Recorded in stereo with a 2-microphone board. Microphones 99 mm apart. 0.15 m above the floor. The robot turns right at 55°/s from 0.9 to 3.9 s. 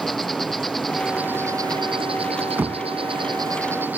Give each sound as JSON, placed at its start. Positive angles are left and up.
{"t": 0.0, "sound": "an insect", "azimuth_deg": 180}
{"t": 2.6, "sound": "knocking", "side_deg": -20}